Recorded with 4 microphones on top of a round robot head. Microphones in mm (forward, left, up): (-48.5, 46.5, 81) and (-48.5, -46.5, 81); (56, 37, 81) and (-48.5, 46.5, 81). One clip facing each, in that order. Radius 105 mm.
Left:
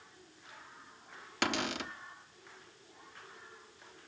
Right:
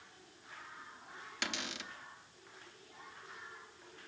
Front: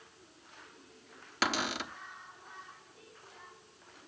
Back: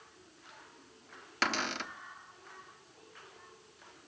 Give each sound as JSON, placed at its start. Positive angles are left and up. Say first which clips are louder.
{"t": 1.4, "sound": "a cupboard door", "louder": "left 9 dB, front 1 dB", "azimuth_deg": 75, "distance_m": 1.1}